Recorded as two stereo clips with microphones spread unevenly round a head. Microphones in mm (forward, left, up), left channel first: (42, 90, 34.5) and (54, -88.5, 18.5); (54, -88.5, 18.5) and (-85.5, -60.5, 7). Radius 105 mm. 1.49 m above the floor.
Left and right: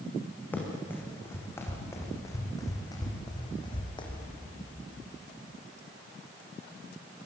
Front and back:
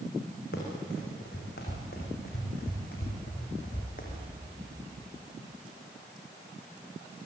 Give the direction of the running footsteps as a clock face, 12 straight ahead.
11 o'clock.